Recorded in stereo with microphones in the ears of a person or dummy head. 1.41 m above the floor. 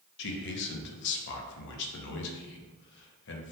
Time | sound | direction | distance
0.2 | a man speaking | 65° left (ahead or behind) | 0.6 m